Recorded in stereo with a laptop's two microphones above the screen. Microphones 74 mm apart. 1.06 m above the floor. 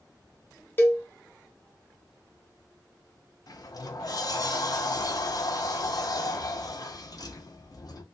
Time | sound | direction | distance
0.8 | a cowbell | 30° left (ahead or behind) | 0.6 m
3.5 | a sliding door | 55° left (ahead or behind) | 0.5 m